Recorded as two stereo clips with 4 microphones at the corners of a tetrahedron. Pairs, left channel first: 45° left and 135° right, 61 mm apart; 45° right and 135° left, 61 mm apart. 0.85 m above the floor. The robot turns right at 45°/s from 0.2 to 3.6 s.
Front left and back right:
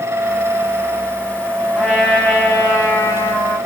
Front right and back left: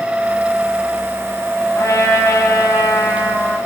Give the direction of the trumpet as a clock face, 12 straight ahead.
2 o'clock.